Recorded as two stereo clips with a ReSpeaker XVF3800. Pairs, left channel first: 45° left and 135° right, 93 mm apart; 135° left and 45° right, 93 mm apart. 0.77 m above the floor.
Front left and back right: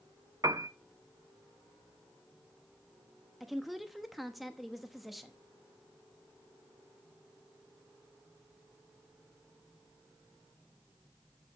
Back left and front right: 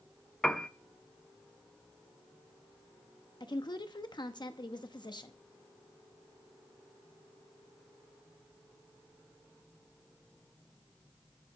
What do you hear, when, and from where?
0.4 s a piano: 145° right, 0.6 m
3.4 s a woman speaking: 135° left, 0.9 m